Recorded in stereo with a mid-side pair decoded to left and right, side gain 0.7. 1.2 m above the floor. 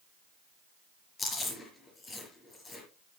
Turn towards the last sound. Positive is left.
turn(degrees=25)